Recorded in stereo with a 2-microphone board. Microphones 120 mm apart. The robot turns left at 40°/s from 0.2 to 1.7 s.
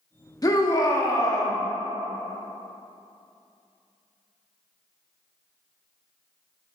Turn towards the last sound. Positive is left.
turn(degrees=50)